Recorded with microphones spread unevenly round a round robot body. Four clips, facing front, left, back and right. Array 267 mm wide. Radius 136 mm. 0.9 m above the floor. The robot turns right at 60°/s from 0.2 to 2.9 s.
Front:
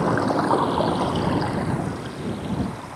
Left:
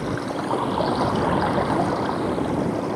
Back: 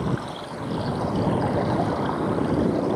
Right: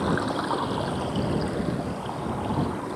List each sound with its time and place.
0.0 s running water: 5° right; by 3.0 s 155° left